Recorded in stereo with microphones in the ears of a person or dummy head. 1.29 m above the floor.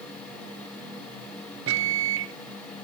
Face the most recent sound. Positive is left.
turn(degrees=-65)  # may be behind; listen again after turning